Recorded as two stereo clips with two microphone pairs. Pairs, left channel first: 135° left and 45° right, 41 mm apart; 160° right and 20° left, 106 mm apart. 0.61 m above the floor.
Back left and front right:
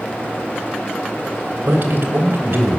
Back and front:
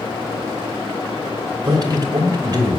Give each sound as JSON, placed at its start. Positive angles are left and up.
{"t": 1.6, "sound": "a man speaking", "azimuth_deg": -25, "distance_m": 3.0}